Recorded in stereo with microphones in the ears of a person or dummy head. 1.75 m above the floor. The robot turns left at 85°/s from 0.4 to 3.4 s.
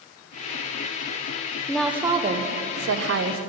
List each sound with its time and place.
1.7 s a woman speaking: 10° left, 1.2 m; by 3.4 s 135° right, 1.2 m